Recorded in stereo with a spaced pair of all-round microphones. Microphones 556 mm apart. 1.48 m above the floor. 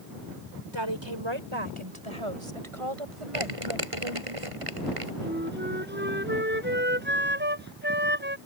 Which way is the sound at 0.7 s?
55° right (ahead or behind).